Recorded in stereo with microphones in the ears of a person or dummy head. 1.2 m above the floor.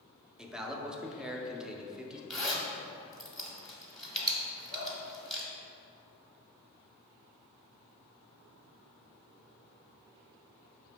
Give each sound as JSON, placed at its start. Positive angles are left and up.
{"t": 0.4, "sound": "a man speaking", "side_deg": -5, "distance_m": 0.5}
{"t": 2.3, "sound": "a zipper", "side_deg": 5, "distance_m": 0.9}
{"t": 4.7, "sound": "dripping", "side_deg": 55, "distance_m": 1.8}